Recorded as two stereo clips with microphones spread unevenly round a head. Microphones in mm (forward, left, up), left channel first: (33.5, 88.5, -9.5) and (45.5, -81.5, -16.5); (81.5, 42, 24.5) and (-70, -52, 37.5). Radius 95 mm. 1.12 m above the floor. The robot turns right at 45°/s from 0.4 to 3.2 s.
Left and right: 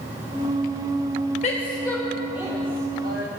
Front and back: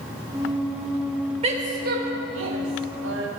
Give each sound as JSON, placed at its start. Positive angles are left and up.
{"t": 1.4, "sound": "a woman speaking", "azimuth_deg": 150, "distance_m": 1.3}